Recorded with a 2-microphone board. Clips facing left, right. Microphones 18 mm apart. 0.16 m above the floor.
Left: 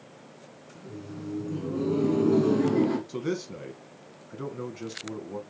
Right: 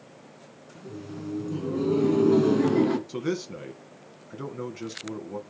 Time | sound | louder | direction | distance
0.8 | laughter | right 2 dB | 20° right (ahead or behind) | 1.7 m
3.1 | a man speaking | right 1 dB | 10° right (ahead or behind) | 1.1 m